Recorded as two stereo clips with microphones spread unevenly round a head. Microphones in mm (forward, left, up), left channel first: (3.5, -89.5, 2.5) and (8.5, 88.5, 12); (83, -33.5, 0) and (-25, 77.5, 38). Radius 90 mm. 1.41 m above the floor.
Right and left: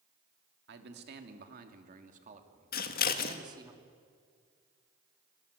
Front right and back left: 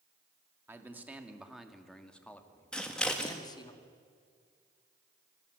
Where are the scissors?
135° right, 1.6 m.